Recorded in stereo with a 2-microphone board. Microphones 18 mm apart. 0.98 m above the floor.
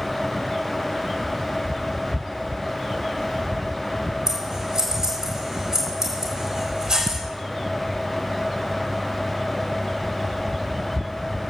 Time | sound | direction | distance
4.3 | scissors | 30° right (ahead or behind) | 4.5 m